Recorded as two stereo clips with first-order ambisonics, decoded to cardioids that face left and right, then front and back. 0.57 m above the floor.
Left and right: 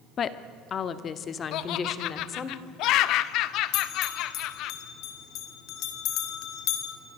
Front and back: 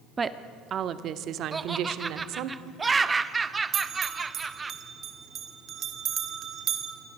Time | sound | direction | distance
0.2 | a woman speaking | 120° left | 1.0 m
1.5 | laughter | 105° left | 0.9 m
3.7 | a bell | 125° left | 2.5 m